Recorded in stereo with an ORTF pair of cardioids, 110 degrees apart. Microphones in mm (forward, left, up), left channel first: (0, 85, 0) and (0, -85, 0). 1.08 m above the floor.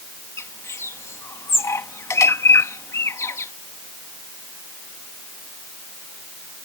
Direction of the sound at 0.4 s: 15° left.